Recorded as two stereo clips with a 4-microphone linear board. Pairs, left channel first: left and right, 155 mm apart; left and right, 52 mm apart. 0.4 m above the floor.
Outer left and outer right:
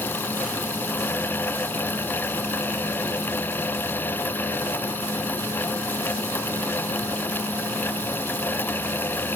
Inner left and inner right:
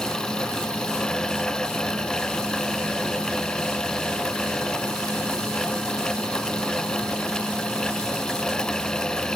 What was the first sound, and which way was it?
Only background noise.